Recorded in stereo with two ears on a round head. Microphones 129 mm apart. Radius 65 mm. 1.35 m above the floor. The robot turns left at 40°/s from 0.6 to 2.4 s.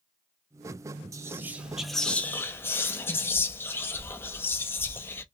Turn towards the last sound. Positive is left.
turn(degrees=160)